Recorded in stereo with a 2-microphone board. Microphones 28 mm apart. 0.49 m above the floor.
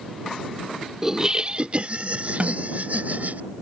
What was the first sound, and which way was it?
Laughter, 15° right (ahead or behind).